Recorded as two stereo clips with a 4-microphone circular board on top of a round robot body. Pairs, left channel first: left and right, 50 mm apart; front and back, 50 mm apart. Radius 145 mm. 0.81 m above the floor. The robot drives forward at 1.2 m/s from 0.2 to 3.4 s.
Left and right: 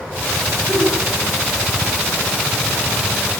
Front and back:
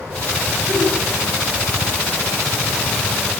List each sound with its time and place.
0.7 s a giggle: 135° right, 4 m; by 1.0 s 140° right, 4 m